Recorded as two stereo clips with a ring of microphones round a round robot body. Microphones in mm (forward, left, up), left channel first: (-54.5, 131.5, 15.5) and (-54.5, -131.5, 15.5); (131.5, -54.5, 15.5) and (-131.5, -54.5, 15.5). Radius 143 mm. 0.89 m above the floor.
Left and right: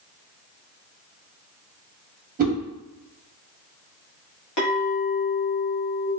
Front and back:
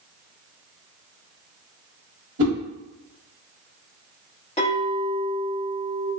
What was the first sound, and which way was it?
A whoosh, 150° right.